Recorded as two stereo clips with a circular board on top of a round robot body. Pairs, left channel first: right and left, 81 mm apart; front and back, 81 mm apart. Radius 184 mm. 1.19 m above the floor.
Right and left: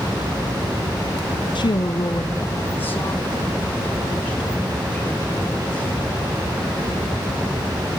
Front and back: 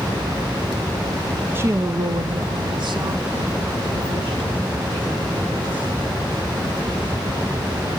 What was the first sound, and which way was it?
A woman speaking, 115° right.